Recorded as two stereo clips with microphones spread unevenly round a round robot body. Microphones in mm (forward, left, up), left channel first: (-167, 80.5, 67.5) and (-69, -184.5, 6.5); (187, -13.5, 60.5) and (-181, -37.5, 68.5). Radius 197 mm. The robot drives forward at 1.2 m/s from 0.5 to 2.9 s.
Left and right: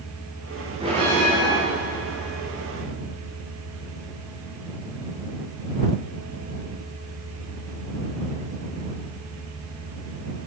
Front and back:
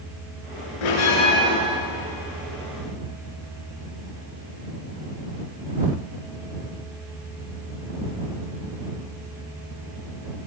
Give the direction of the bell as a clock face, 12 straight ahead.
12 o'clock.